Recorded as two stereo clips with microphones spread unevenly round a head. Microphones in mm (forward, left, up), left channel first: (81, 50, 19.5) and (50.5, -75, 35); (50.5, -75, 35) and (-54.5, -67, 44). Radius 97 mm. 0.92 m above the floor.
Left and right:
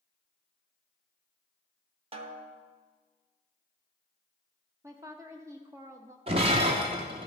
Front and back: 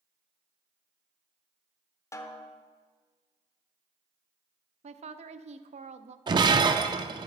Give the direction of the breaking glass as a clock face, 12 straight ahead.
5 o'clock.